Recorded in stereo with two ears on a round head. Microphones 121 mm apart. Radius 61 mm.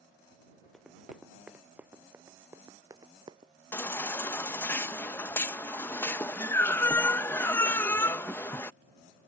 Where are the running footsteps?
Centre (ahead or behind); by 3.5 s 35° right (ahead or behind).